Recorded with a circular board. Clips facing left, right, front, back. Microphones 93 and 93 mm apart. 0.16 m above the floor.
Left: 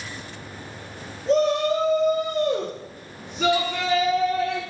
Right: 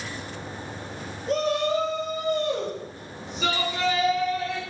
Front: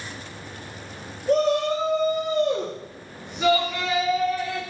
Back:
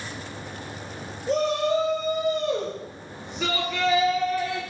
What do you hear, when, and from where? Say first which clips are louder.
1.3 s a shout: left 4 dB, front 3 dB; 40° left, 2.5 m; by 4.6 s 90° left, 2.5 m